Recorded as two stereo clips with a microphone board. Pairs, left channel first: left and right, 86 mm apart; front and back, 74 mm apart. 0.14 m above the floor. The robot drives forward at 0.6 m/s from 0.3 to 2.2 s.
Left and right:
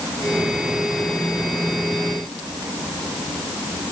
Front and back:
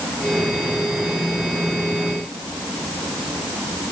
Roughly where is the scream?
I don't hear a scream.